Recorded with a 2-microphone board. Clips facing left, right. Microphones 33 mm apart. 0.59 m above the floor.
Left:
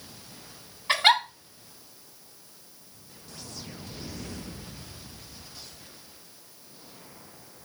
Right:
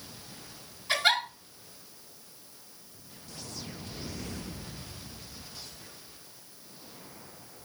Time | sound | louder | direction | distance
0.9 | a giggle | left 5 dB | 45° left (ahead or behind) | 2.5 m